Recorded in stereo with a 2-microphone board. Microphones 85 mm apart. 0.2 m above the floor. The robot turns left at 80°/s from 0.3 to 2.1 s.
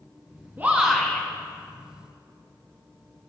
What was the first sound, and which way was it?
A shout, 150° right.